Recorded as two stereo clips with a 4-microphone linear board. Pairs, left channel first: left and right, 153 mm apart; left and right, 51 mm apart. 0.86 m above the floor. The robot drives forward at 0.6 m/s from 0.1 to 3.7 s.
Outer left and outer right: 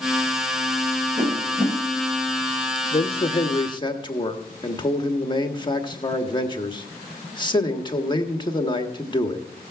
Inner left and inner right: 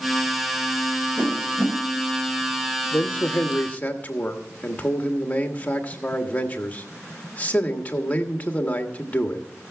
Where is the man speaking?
40° left (ahead or behind), 1.1 m; by 9.4 s 30° left (ahead or behind), 1.5 m.